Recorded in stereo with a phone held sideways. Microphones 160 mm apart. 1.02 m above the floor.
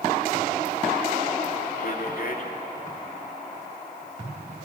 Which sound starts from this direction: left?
A man speaking, at 1.8 s.